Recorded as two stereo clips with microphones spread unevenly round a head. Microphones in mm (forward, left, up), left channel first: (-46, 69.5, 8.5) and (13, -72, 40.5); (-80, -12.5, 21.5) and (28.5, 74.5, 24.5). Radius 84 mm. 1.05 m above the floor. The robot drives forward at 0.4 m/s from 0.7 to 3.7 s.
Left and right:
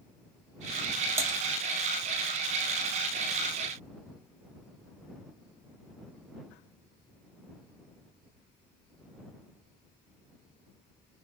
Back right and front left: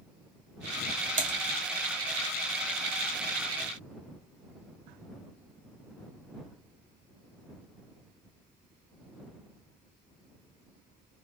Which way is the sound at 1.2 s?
10° left.